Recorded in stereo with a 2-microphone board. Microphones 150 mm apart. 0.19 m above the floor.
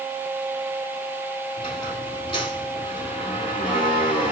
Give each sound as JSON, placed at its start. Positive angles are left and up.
{"t": 1.6, "sound": "a squeak", "side_deg": 35, "distance_m": 2.0}